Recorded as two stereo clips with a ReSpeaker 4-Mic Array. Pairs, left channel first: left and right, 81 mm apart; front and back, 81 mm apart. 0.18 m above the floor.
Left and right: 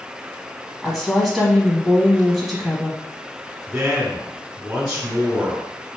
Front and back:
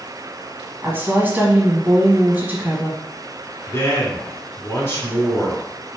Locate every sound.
0.8 s a woman speaking: 175° left, 1.2 m
3.7 s a man speaking: 20° right, 1.4 m